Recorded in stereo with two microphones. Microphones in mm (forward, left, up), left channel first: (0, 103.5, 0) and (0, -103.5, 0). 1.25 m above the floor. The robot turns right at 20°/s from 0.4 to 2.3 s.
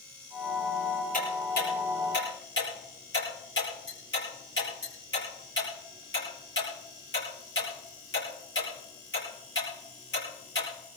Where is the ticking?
45° left (ahead or behind), 8.5 m; by 10.7 s 65° left (ahead or behind), 8.5 m.